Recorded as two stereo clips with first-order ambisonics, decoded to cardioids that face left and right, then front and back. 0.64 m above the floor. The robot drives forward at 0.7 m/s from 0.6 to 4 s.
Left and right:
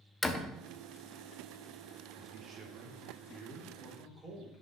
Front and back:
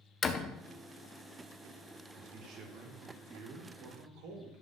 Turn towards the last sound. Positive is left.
turn(degrees=-160)